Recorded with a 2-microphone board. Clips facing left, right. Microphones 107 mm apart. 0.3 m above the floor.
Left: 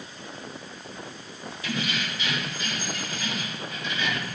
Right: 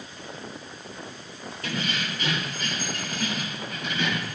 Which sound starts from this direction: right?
Keys jangling, at 1.6 s.